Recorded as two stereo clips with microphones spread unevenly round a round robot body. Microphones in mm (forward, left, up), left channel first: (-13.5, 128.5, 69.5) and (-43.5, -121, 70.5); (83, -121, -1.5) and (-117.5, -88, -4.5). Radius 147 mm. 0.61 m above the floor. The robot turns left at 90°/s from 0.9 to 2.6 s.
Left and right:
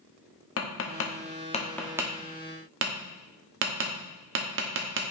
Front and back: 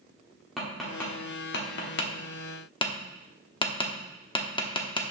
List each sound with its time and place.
0.6 s tapping: 80° left, 1.2 m; by 5.1 s 70° right, 1.2 m